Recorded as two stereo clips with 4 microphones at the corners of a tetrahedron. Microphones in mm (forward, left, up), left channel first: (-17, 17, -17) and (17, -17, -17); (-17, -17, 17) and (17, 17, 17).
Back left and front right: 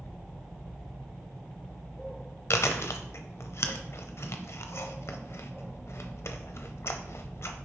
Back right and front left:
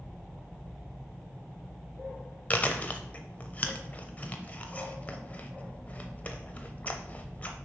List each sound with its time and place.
2.5 s chewing: 165° left, 0.7 m